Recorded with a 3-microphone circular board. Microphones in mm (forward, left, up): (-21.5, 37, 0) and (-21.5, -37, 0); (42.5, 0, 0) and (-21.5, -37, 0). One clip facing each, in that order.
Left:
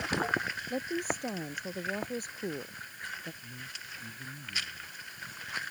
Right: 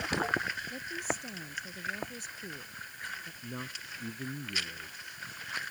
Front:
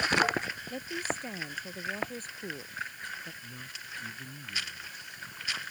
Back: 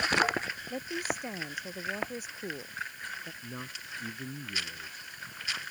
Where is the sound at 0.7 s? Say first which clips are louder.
Left 3 dB, back 1 dB; 130° left.